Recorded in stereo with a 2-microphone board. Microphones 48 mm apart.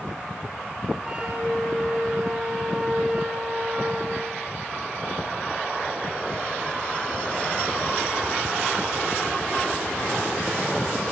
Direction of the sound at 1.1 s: 15° right (ahead or behind).